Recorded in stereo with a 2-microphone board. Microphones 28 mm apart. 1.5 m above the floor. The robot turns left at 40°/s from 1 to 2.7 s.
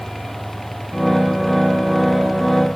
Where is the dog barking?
No dog barking in this recording.